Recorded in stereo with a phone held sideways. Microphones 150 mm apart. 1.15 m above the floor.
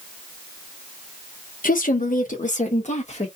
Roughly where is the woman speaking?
Left.